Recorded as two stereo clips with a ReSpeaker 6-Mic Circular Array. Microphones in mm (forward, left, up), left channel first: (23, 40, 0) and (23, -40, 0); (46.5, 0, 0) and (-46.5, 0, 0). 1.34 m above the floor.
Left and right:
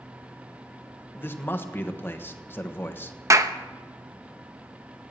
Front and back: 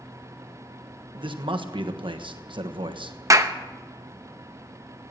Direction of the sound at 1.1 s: 155° left.